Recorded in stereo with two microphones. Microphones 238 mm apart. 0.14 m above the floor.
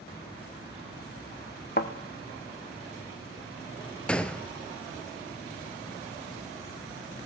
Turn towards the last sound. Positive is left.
turn(degrees=5)  # may be behind; listen again after turning